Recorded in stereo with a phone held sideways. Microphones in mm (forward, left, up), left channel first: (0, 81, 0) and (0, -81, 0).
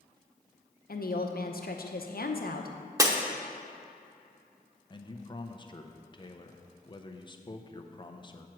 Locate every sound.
0.9 s a woman speaking: 65° left (ahead or behind), 0.8 m
3.0 s breaking glass: 20° right (ahead or behind), 0.8 m
4.9 s a man speaking: 30° left (ahead or behind), 0.6 m